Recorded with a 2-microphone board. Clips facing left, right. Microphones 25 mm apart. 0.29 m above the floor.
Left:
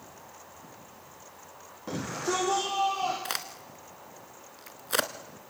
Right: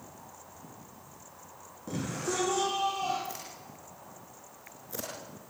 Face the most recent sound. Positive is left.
turn(degrees=75)  # may be behind; listen again after turning